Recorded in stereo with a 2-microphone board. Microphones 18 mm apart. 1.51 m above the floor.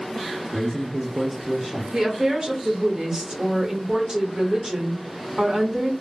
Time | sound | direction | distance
0.5 | a man speaking | 65° right (ahead or behind) | 0.8 m
1.9 | a woman speaking | 35° right (ahead or behind) | 1.0 m